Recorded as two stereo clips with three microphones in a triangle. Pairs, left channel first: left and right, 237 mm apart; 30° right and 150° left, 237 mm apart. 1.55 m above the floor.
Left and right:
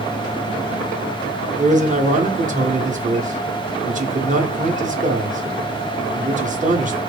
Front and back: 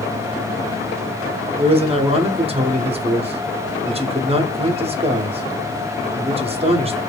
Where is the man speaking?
145° right, 0.7 m.